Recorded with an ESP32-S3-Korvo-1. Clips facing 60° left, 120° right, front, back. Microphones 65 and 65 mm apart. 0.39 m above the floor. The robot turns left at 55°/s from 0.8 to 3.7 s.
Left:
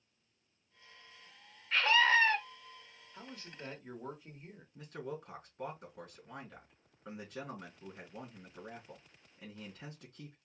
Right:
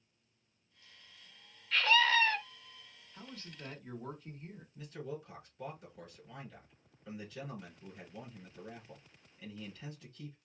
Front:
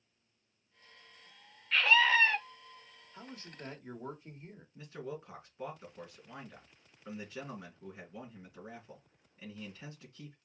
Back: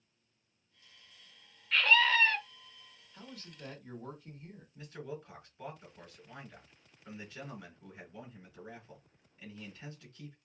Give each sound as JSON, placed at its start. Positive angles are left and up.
{"t": 1.7, "sound": "a scream", "azimuth_deg": 85, "distance_m": 1.0}
{"t": 3.1, "sound": "a man speaking", "azimuth_deg": 30, "distance_m": 1.2}
{"t": 4.8, "sound": "a man speaking", "azimuth_deg": 65, "distance_m": 4.0}